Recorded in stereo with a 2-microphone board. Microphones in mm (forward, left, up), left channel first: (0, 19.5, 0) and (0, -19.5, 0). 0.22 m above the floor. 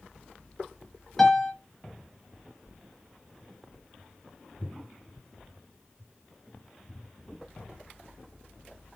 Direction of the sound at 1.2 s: 10° left (ahead or behind).